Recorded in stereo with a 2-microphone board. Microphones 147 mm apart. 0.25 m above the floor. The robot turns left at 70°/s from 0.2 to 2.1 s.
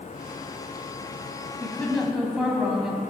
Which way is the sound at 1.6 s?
30° left.